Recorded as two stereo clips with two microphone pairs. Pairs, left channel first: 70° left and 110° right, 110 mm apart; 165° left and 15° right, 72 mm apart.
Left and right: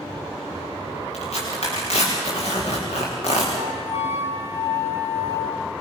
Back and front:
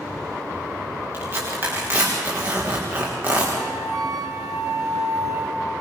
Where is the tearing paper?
50° left, 9.5 m.